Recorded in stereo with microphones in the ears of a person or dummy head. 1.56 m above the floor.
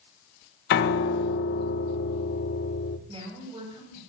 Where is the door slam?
No door slam in this recording.